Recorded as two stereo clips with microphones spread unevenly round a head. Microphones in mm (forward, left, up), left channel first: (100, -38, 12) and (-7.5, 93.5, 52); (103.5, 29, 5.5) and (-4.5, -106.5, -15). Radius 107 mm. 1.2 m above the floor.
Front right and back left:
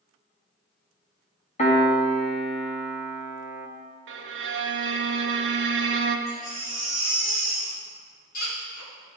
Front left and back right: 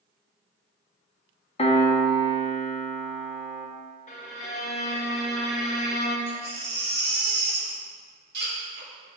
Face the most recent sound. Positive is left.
turn(degrees=-100)